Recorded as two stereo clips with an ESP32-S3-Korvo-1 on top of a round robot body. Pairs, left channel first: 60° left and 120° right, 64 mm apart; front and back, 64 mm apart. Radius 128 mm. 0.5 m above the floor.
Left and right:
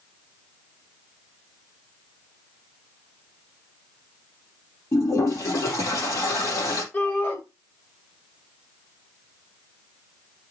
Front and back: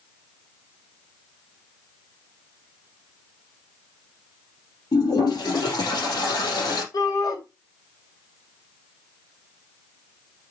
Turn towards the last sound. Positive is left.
turn(degrees=-5)